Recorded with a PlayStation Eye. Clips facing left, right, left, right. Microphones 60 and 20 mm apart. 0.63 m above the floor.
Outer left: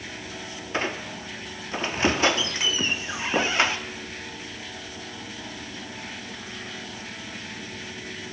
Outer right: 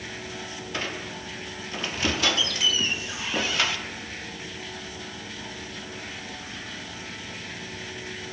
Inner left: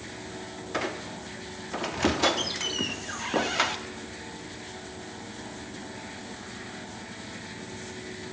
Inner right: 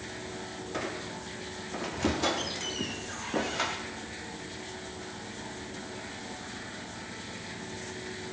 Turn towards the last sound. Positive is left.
turn(degrees=30)  # may be behind; listen again after turning